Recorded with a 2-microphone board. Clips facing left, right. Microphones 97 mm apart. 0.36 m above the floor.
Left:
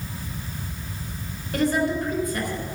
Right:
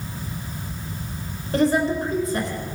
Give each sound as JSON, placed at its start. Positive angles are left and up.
{"t": 1.5, "sound": "a woman speaking", "side_deg": -25, "distance_m": 4.0}